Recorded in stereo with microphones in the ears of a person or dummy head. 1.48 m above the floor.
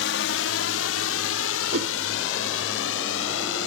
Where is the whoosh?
65° right (ahead or behind).